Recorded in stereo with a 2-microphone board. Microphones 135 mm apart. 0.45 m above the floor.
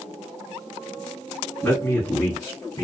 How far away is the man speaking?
About 2 m.